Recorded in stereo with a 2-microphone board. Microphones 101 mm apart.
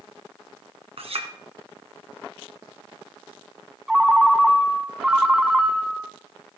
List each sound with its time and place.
1.0 s a clink: 65° right (ahead or behind), 2 m
3.9 s a ringtone: 5° right (ahead or behind), 1.1 m